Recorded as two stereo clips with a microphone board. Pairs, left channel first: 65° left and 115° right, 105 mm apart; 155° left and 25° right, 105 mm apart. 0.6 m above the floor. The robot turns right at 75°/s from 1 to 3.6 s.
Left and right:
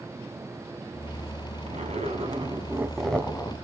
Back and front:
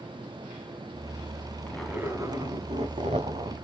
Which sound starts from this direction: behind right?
A zipper, at 1.7 s.